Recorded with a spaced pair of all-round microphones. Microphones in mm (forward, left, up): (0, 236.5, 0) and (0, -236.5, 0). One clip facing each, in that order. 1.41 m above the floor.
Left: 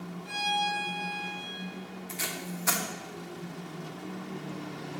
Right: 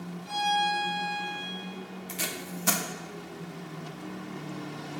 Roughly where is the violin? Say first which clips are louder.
Right 5 dB; left.